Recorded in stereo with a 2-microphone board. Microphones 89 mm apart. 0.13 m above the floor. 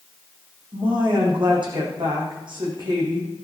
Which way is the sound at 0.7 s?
65° right (ahead or behind).